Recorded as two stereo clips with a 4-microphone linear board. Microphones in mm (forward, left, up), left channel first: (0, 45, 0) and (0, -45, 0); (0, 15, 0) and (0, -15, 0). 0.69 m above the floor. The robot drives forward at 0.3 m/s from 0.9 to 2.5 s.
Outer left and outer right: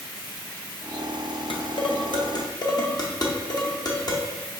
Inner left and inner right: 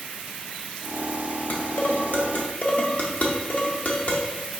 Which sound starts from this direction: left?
Dishes clattering, at 1.5 s.